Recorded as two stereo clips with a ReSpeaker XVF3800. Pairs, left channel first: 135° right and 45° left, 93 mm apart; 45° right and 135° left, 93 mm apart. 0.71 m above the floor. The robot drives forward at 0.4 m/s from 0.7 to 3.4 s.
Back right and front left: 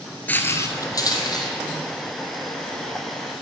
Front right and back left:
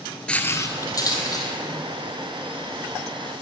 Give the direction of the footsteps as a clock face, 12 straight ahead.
3 o'clock.